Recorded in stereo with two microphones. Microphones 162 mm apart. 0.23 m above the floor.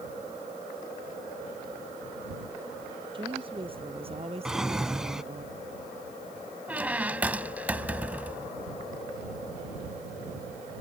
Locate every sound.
3.1 s a woman speaking: 30° right (ahead or behind); by 5.5 s 45° right (ahead or behind)
4.5 s a drawer: 5° right (ahead or behind)
6.7 s a squeak: 10° right (ahead or behind)